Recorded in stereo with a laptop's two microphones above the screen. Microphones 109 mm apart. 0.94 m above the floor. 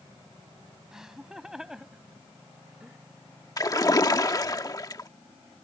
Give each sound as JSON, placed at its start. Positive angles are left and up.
{"t": 0.9, "sound": "laughter", "side_deg": -5}
{"t": 3.6, "sound": "a splash", "side_deg": 35}